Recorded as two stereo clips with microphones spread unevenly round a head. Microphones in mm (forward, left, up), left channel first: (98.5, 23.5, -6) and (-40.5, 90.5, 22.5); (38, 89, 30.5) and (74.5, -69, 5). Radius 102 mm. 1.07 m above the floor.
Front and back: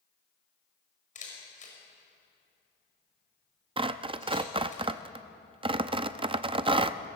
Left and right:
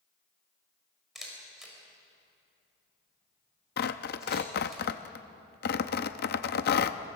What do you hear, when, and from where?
1.1 s a camera shutter: 10° left, 6 m
3.8 s tearing paper: 105° left, 0.7 m